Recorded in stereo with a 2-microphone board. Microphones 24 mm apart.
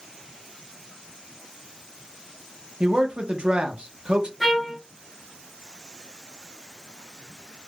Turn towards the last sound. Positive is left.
turn(degrees=0)  # may be behind; listen again after turning